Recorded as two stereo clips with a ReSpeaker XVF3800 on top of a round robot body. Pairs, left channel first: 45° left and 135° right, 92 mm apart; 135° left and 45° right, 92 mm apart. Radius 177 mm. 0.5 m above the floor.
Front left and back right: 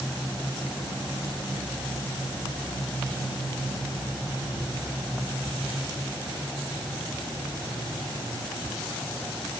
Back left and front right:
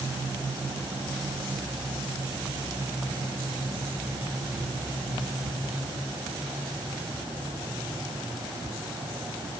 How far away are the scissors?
I don't hear scissors.